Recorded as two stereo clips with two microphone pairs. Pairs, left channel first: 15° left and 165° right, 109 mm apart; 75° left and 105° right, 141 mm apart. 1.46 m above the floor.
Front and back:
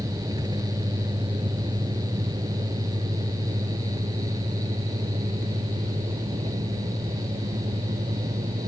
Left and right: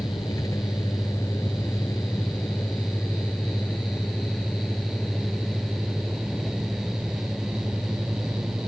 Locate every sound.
0.0 s a vehicle: 140° left; by 8.7 s 170° left